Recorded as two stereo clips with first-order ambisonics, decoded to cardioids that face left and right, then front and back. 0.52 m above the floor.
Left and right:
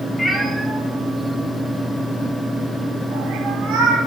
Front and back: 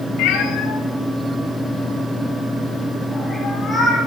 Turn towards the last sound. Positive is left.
turn(degrees=-100)